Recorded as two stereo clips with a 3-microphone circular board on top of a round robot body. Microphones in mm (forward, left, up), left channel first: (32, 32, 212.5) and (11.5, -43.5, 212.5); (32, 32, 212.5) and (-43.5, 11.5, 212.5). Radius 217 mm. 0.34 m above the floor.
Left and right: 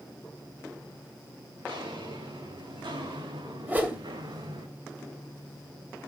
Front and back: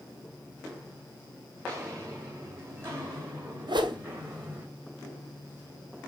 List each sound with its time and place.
1.6 s footsteps: 105° right, 6 m; by 4.7 s 95° right, 3 m
3.7 s a whoosh: 175° right, 2 m